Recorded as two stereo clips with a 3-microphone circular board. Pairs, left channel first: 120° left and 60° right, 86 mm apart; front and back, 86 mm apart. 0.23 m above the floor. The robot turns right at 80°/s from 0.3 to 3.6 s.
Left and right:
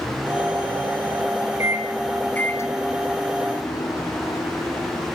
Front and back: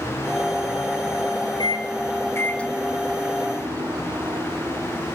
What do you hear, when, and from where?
1.6 s a microwave: 10° right, 2 m; by 5.1 s 150° left, 2 m